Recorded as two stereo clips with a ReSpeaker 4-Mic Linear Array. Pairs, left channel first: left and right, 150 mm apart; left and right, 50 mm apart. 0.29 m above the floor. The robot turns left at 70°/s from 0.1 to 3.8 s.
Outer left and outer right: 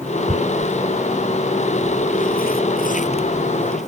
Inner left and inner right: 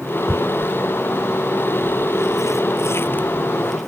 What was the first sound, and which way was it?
Tearing paper, 65° right (ahead or behind).